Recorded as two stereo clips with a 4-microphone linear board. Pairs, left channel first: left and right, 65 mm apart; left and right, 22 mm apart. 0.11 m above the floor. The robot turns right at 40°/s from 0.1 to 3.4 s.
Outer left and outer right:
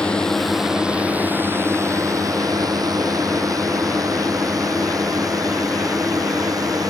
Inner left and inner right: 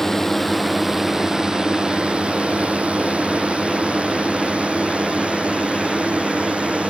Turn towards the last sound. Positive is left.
turn(degrees=-65)  # may be behind; listen again after turning